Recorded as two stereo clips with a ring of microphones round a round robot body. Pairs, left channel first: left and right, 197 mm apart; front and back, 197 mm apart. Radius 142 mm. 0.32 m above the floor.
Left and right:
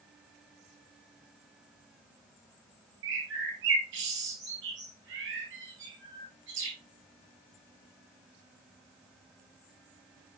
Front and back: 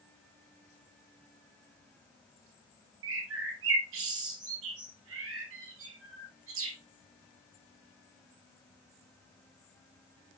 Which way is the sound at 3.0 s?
140° right.